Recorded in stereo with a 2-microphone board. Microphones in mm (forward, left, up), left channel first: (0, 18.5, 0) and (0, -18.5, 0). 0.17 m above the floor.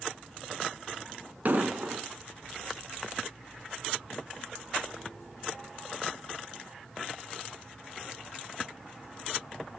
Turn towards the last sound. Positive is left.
turn(degrees=-50)  # may be behind; listen again after turning